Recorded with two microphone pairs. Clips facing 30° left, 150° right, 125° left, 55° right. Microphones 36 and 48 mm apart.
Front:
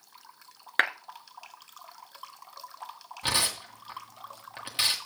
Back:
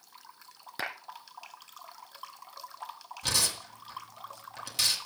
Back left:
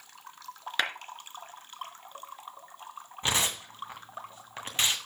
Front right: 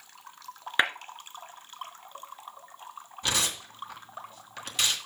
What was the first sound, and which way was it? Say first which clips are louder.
A clap: front 11 dB, front right 5 dB; 20° left.